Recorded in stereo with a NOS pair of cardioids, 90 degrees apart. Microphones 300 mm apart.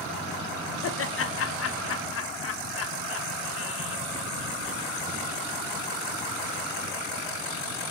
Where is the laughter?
50° left, 1.0 m.